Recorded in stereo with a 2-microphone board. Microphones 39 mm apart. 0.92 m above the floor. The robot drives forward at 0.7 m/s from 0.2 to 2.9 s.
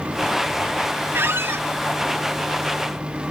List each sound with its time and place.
1.1 s a squeak: 70° right (ahead or behind), 0.7 m